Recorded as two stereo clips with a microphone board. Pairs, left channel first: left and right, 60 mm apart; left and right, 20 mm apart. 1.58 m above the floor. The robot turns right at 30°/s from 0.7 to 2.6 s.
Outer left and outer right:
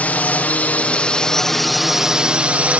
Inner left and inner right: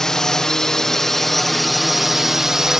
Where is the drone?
150° left; by 2.8 s 155° right.